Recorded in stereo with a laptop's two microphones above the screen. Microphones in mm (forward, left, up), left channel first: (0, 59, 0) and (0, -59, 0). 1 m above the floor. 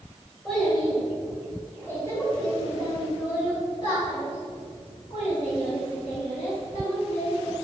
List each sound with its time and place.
0.5 s a child speaking: centre (ahead or behind), 3 m; by 7.5 s 70° left (ahead or behind), 4.5 m